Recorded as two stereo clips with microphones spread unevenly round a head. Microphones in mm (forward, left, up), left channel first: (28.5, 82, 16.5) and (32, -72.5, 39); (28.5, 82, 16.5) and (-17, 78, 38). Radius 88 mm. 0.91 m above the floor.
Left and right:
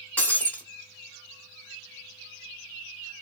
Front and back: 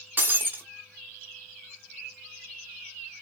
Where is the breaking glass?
Straight behind, 0.7 m.